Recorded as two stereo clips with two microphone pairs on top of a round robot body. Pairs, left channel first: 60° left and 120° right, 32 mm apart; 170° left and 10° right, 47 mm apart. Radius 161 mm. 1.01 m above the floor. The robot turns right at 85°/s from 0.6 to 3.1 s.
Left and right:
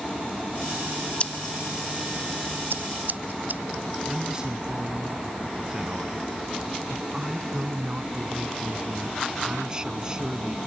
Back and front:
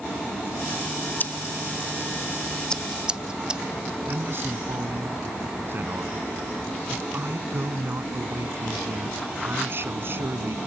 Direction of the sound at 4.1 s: 50° right.